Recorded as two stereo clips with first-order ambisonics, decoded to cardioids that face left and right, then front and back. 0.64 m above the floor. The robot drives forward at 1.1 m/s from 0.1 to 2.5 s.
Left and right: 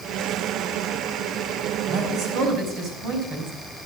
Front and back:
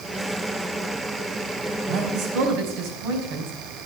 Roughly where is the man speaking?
Behind right.